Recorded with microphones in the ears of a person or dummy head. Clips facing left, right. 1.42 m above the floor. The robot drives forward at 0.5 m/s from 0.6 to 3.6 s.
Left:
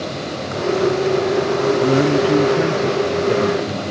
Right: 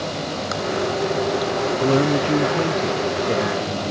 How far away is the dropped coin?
I don't hear a dropped coin.